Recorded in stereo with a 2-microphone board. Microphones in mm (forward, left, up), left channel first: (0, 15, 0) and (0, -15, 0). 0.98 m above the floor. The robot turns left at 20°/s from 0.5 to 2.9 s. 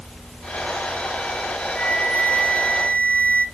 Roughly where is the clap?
No clap in this recording.